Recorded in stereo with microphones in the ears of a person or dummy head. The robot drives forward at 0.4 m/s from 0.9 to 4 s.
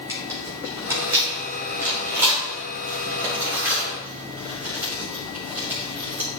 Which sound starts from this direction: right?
Tearing paper, at 0.1 s.